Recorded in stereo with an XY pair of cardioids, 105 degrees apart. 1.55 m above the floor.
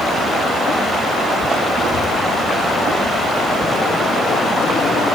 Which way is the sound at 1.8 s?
55° left.